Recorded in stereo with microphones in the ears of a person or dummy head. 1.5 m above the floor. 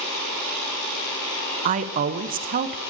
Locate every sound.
1.6 s a woman speaking: 35° right (ahead or behind), 0.8 m